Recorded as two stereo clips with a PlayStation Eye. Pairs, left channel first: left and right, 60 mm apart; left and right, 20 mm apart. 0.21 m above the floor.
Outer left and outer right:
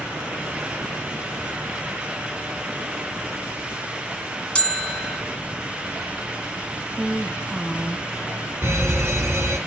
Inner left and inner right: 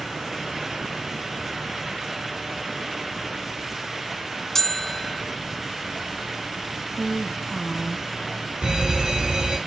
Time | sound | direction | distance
4.5 | a bell | 15° left (ahead or behind) | 1.2 m
6.9 | a woman speaking | 20° right (ahead or behind) | 1.1 m
8.6 | a fire alarm | 55° right (ahead or behind) | 4.5 m